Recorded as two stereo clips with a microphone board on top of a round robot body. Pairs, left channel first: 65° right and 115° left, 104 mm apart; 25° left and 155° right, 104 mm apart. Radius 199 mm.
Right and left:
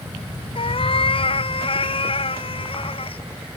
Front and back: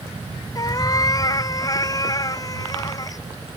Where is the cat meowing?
35° right.